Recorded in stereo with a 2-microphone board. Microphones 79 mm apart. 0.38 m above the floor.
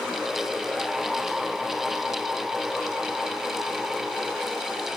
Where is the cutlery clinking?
I don't hear cutlery clinking.